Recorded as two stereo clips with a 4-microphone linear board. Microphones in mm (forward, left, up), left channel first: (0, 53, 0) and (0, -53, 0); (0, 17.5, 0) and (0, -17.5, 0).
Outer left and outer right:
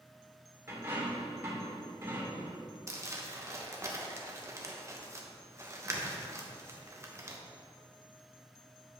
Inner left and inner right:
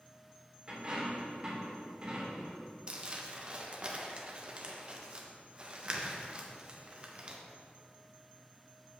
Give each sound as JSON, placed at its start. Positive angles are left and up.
{"t": 0.7, "sound": "a dropped coin", "side_deg": -25, "distance_m": 3.0}
{"t": 2.9, "sound": "crumpling", "side_deg": -30, "distance_m": 1.0}